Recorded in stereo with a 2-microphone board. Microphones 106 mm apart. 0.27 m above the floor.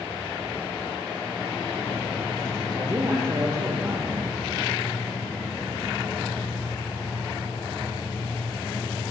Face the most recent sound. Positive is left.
turn(degrees=-30)  # may be behind; listen again after turning